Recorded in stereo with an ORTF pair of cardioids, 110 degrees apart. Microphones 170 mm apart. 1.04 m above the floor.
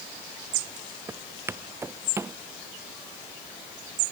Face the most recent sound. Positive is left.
turn(degrees=-15)